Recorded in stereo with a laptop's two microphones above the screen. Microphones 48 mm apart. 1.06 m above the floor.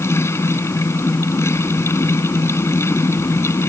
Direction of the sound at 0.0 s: 80° left.